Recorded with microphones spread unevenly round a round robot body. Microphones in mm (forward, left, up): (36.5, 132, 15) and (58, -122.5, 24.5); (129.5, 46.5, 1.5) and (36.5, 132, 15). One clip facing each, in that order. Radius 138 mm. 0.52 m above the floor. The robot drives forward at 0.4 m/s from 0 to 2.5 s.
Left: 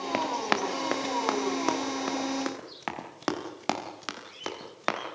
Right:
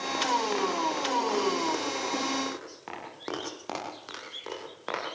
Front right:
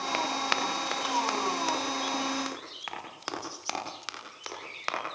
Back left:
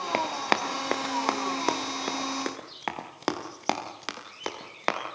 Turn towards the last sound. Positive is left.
turn(degrees=110)